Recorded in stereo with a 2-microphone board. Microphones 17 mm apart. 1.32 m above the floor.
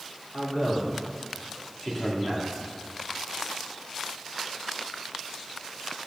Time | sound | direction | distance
0.3 | a man speaking | 30° left (ahead or behind) | 3.5 m